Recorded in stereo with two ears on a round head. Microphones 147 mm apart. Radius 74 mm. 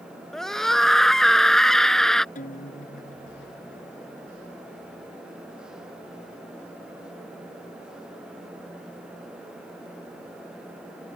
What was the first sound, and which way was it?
A scream, 5° left (ahead or behind).